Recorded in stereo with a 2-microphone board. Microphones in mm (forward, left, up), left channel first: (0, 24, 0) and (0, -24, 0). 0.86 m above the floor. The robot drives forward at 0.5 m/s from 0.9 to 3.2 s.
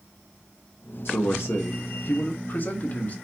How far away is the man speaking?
About 0.7 m.